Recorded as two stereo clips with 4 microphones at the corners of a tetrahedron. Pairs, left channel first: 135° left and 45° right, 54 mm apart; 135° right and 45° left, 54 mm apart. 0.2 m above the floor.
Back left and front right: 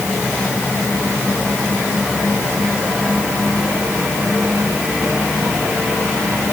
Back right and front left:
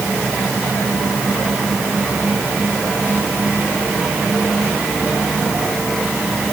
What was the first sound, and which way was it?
Only background noise.